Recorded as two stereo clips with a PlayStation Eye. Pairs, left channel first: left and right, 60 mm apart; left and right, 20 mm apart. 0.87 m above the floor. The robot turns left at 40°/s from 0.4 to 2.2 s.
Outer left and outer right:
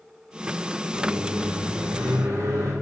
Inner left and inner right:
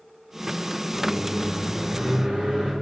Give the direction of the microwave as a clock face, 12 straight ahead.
2 o'clock.